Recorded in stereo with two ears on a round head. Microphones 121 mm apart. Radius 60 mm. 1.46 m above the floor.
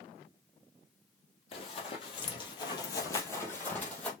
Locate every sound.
1.5 s running footsteps: 40° left (ahead or behind), 2.0 m; by 4.1 s 5° left (ahead or behind), 2 m